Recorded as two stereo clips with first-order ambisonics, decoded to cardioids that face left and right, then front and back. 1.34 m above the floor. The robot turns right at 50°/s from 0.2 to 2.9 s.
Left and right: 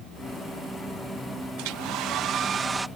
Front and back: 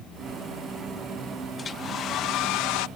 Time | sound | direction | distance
1.6 | a hair dryer | 75° right | ?